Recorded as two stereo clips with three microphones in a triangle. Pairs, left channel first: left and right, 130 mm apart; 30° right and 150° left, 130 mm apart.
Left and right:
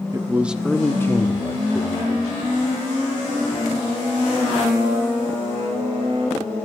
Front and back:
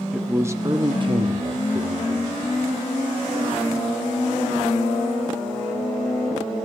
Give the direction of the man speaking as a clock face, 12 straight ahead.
4 o'clock.